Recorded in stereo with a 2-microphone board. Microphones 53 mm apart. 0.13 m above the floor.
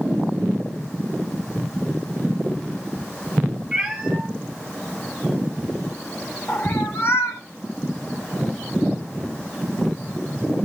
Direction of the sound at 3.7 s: 5° right (ahead or behind).